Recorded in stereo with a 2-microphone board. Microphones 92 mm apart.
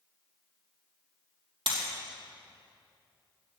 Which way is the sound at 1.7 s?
70° right (ahead or behind).